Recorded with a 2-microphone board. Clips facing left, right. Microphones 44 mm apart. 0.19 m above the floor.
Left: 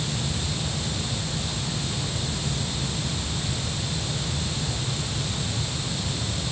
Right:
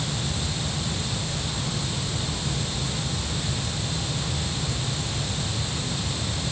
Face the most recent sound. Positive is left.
No sound to turn to.